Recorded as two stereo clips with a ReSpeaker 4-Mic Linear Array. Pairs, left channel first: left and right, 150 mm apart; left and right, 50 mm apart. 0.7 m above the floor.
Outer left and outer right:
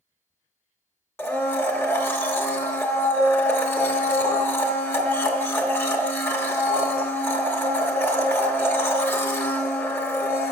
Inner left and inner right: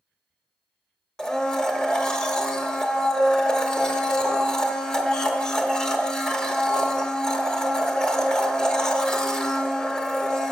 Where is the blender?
15° left (ahead or behind), 0.8 m.